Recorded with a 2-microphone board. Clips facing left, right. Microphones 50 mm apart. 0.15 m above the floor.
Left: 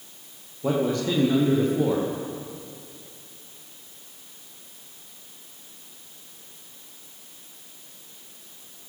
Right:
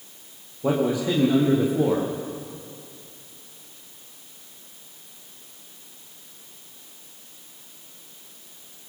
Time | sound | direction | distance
0.6 | a man speaking | 10° right (ahead or behind) | 6.5 m